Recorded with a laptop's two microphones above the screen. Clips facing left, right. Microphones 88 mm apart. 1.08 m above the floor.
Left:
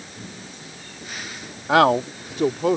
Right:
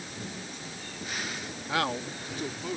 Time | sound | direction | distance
1.7 | a man speaking | 80° left | ?